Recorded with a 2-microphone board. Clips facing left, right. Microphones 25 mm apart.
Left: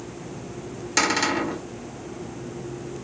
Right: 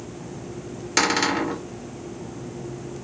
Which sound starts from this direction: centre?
A cupboard door, at 1.0 s.